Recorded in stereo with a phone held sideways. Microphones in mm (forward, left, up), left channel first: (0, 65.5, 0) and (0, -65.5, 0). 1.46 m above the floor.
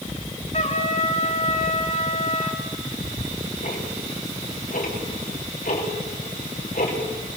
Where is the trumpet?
55° left (ahead or behind), 2.5 m.